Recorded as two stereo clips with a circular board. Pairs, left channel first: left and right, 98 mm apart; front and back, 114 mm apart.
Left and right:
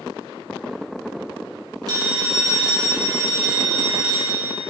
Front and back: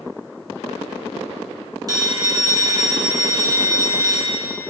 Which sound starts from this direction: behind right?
A phone ringing, at 1.9 s.